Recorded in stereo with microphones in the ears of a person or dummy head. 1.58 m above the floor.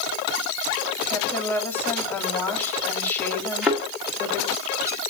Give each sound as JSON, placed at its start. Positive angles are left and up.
{"t": 1.1, "sound": "a woman speaking", "side_deg": 15, "distance_m": 3.5}
{"t": 3.6, "sound": "a thud", "side_deg": 0, "distance_m": 1.3}